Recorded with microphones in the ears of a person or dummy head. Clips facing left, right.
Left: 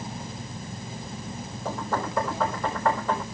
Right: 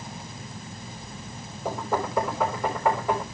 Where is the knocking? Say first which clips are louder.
Right 2 dB; 15° right (ahead or behind), 3.5 m.